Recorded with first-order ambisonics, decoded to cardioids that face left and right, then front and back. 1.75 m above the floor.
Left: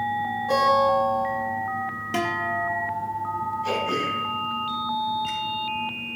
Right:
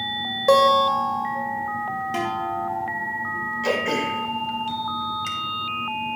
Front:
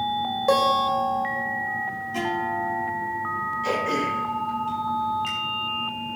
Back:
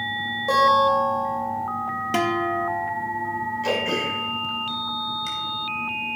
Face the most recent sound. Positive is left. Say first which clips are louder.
# right 4 dB, back 1 dB
turn(degrees=-110)